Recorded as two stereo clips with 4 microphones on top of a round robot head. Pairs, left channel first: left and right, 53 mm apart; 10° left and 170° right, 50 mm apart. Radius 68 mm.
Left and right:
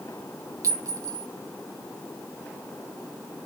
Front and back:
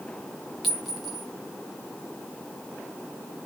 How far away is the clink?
About 1.5 m.